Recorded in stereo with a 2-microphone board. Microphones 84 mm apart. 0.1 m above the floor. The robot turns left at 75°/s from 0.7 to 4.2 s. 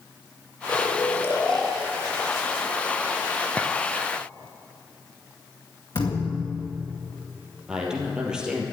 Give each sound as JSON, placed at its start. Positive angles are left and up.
{"t": 0.7, "sound": "snoring", "azimuth_deg": 65, "distance_m": 1.6}
{"t": 3.6, "sound": "a clink", "side_deg": 15, "distance_m": 0.8}
{"t": 6.0, "sound": "a thud", "side_deg": 60, "distance_m": 2.0}
{"t": 7.7, "sound": "a man speaking", "side_deg": -10, "distance_m": 3.0}